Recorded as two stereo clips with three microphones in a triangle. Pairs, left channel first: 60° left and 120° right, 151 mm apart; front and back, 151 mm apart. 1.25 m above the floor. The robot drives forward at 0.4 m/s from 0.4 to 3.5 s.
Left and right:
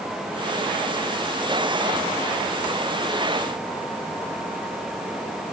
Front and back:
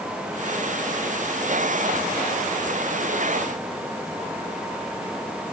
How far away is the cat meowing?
No cat meowing in this recording.